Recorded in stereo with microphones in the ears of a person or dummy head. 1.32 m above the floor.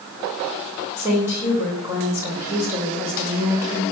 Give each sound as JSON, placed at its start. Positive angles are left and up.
{"t": 1.0, "sound": "a woman speaking", "side_deg": -15, "distance_m": 5.0}